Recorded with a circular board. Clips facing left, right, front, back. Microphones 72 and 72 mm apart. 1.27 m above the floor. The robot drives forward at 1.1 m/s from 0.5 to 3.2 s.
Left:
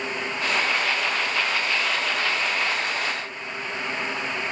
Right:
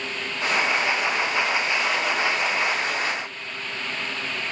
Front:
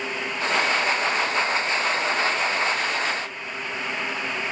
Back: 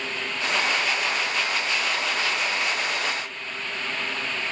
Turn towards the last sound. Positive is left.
No sound to turn to.